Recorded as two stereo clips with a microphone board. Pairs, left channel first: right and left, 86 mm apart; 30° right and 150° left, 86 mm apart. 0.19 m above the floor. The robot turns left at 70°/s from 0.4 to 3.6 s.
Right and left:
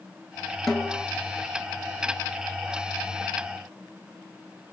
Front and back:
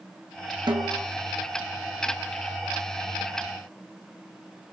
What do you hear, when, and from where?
0.7 s a snare drum: 175° right, 2.5 m; by 1.1 s 155° left, 2.5 m